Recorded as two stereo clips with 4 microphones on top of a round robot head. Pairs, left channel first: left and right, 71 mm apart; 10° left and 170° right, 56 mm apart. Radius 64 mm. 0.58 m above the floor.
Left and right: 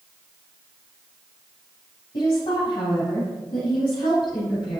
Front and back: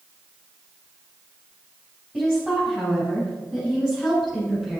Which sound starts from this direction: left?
A woman speaking, at 2.1 s.